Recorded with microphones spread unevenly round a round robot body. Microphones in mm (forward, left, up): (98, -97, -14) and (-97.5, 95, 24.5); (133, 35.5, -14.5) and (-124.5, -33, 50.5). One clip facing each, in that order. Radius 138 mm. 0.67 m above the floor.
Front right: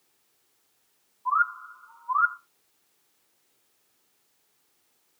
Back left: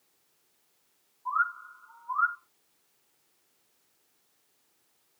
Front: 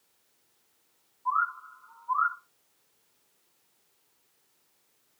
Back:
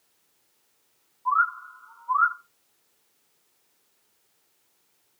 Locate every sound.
1.2 s a bird: 110° right, 6 m